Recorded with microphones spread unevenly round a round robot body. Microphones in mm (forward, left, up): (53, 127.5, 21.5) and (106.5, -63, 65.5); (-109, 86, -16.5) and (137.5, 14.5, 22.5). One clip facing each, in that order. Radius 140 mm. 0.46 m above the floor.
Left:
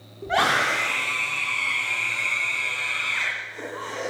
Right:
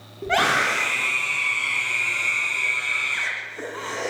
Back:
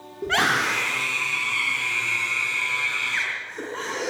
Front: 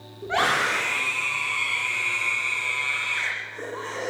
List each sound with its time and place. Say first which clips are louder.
0.2 s a scream: right 1 dB, back 1 dB; 145° right, 6 m